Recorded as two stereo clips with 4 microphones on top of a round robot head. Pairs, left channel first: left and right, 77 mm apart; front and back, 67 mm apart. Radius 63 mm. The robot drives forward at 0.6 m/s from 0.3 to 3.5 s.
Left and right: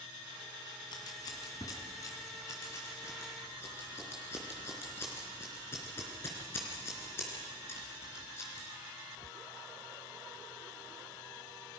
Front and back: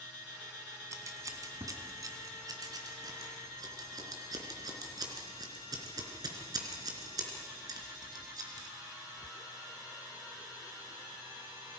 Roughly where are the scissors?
Behind left.